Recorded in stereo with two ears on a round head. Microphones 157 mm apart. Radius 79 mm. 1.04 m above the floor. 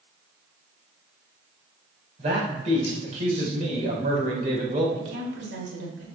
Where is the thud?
I don't hear a thud.